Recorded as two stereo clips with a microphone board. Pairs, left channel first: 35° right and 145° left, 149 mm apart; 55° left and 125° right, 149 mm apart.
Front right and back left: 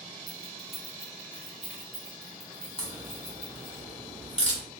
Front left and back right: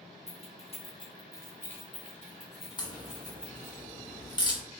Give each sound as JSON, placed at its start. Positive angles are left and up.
{"t": 0.3, "sound": "keys jangling", "azimuth_deg": 25, "distance_m": 0.9}
{"t": 2.8, "sound": "a crack", "azimuth_deg": 5, "distance_m": 1.2}